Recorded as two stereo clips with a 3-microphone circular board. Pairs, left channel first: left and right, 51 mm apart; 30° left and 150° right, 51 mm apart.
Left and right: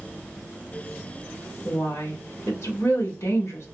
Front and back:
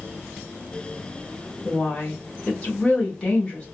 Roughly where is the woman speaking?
Left.